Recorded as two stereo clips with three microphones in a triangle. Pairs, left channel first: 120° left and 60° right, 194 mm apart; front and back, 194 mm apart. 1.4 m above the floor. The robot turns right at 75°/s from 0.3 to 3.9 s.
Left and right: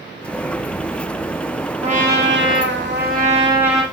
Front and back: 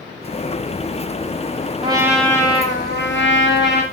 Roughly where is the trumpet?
Behind right.